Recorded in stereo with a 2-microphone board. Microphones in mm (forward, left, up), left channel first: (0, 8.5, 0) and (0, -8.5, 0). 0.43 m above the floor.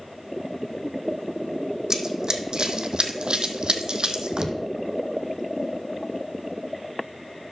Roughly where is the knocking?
Centre.